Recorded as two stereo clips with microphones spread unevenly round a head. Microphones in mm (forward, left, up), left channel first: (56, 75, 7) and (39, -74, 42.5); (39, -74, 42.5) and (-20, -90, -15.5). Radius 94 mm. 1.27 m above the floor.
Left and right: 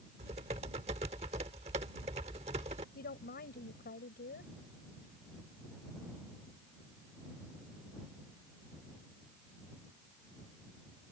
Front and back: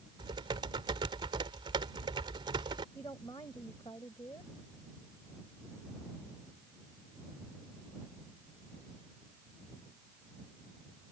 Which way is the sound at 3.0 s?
60° left.